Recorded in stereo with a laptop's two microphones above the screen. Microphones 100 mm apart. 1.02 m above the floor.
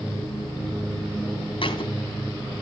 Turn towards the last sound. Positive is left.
turn(degrees=55)  # may be behind; listen again after turning